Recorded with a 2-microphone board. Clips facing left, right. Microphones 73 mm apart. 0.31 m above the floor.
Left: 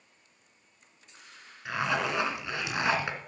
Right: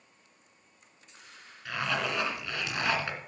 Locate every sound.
1.6 s a zipper: 20° left (ahead or behind), 2.0 m